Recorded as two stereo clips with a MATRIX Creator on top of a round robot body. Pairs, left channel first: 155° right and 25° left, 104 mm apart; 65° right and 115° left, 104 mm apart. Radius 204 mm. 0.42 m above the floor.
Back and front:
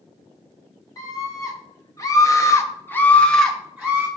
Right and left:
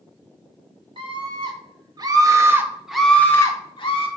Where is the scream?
145° left, 1.4 m; by 4.1 s 55° right, 0.9 m.